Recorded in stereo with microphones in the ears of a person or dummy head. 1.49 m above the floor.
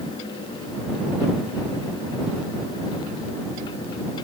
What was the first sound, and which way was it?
Only background noise.